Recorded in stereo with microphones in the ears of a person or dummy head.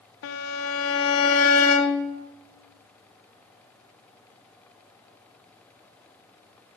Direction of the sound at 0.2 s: 70° left (ahead or behind).